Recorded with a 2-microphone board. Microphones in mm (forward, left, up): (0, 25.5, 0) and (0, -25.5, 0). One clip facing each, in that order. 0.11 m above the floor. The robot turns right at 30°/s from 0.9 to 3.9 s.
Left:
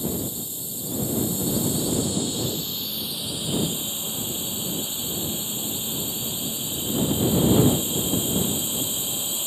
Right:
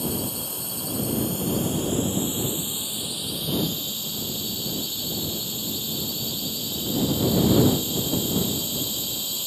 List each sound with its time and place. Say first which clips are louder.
0.0 s a drone: even; 70° right; by 9.5 s 20° left